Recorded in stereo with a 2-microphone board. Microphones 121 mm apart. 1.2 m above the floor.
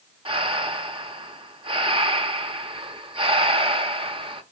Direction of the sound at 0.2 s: 45° right (ahead or behind).